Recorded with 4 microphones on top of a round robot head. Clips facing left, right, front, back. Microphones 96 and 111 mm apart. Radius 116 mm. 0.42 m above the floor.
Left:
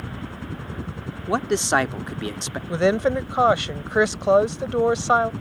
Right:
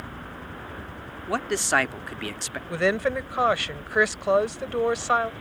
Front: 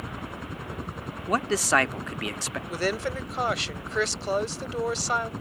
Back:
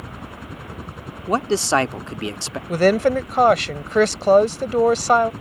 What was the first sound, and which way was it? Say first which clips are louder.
A helicopter: left 4 dB, back 1 dB; 90° left.